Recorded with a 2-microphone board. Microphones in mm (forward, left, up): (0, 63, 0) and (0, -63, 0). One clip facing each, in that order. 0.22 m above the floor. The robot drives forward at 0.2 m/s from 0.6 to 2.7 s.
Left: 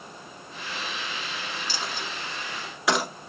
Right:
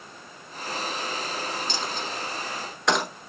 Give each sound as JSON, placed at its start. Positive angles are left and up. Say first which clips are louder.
{"t": 1.7, "sound": "a dropped coin", "louder": "right 3 dB", "side_deg": 5, "distance_m": 1.0}